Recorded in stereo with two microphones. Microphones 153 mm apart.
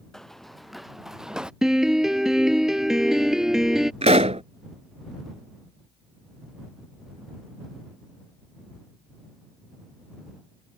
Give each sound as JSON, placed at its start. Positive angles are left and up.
{"t": 0.1, "sound": "running footsteps", "side_deg": 5}
{"t": 1.6, "sound": "a piano", "side_deg": -5}
{"t": 4.0, "sound": "a pop", "side_deg": -45}